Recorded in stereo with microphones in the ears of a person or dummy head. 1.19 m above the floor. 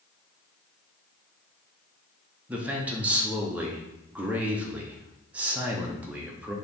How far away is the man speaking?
About 0.6 m.